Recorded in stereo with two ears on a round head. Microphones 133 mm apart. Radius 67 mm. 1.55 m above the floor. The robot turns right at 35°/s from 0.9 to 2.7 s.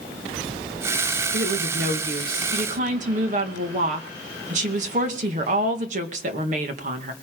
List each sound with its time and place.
1.3 s a woman speaking: 100° right, 2.0 m; by 7.1 s 50° right, 2.0 m